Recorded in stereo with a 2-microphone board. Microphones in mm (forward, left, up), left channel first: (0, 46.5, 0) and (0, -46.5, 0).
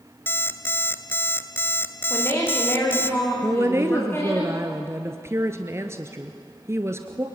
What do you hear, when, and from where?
0.3 s an alarm clock: 25° left (ahead or behind), 1.0 m
2.1 s a woman speaking: 25° left (ahead or behind), 9.5 m
3.4 s a woman speaking: 30° right (ahead or behind), 1.4 m